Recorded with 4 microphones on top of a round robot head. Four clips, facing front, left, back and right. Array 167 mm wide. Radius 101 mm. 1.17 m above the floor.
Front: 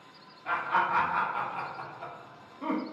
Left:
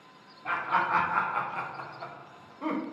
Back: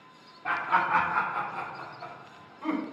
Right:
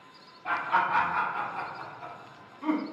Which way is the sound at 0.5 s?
175° left.